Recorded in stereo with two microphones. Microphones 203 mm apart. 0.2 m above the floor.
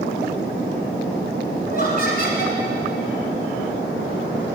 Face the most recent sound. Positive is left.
turn(degrees=50)  # may be behind; listen again after turning